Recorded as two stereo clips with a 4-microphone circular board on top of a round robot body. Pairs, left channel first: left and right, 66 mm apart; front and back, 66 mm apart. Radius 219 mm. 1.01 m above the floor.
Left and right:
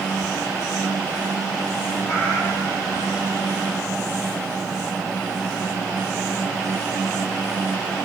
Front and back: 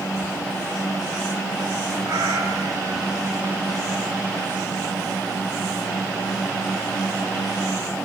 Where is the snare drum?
I don't hear a snare drum.